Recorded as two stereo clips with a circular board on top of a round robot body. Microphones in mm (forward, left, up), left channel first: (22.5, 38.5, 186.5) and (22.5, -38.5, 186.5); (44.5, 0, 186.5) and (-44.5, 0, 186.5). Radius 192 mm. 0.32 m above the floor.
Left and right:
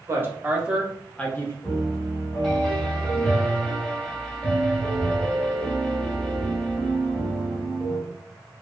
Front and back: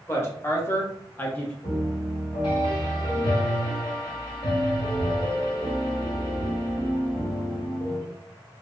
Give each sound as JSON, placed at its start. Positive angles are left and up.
{"t": 0.1, "sound": "a woman speaking", "azimuth_deg": -50, "distance_m": 1.1}
{"t": 1.6, "sound": "a piano", "azimuth_deg": 10, "distance_m": 1.4}